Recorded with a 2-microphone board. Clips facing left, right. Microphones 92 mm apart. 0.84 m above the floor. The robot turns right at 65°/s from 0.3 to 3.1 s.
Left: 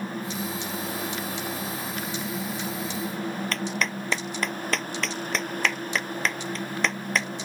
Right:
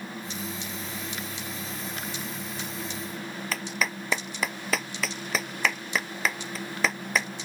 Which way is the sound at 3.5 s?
5° right (ahead or behind).